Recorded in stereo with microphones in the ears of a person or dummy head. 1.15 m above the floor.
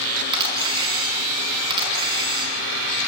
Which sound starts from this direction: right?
A camera shutter, at 0.3 s.